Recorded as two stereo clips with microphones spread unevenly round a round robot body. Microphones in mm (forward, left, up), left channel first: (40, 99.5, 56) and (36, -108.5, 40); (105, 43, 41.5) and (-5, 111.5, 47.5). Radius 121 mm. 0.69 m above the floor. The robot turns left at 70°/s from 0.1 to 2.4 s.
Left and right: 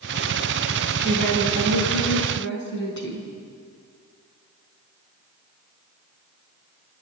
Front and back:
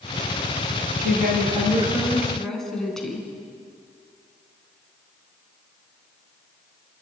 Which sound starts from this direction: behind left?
A woman speaking, at 1.0 s.